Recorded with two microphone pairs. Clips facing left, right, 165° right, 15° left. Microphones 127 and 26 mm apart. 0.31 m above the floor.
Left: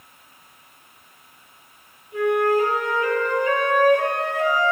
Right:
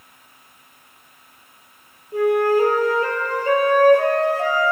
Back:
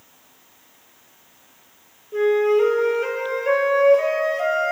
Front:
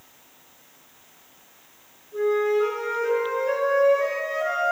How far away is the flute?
About 1.0 m.